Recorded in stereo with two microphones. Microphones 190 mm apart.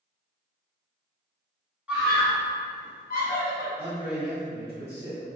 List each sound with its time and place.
1.9 s a scream: 5° right (ahead or behind), 0.9 m; by 3.7 s 65° left (ahead or behind), 1.2 m
3.8 s a man speaking: 45° right (ahead or behind), 0.6 m